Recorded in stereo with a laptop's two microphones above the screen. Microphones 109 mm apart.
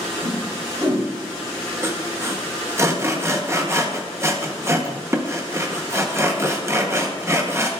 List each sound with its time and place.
0.2 s a whoosh: 45° right (ahead or behind), 2 m
1.8 s sawing: 25° right (ahead or behind), 0.7 m